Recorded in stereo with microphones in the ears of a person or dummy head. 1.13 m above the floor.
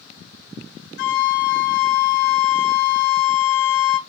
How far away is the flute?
About 0.8 m.